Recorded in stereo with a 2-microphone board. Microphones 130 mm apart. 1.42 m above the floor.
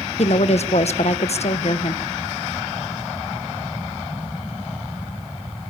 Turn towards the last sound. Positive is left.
turn(degrees=55)  # may be behind; listen again after turning